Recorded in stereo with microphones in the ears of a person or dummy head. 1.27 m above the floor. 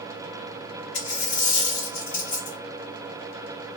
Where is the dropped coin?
55° left (ahead or behind), 1.4 m.